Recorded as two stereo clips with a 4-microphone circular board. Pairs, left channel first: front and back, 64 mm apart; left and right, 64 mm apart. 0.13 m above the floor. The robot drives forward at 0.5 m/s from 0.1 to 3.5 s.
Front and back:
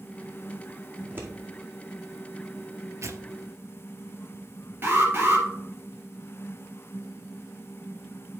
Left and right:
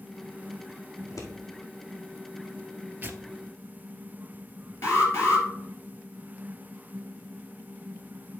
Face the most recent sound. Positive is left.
turn(degrees=130)